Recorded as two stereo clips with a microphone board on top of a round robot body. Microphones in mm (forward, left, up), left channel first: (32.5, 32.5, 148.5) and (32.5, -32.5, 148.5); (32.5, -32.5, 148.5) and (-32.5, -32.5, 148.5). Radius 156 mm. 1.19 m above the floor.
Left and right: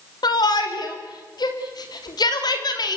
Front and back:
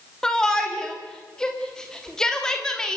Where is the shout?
80° left, 3 m.